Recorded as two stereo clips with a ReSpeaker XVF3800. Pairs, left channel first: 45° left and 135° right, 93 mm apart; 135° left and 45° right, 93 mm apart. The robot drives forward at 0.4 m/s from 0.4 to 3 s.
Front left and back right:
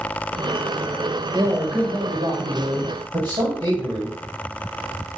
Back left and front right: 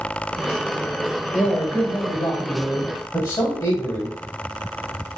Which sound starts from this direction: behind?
A man speaking, at 1.3 s.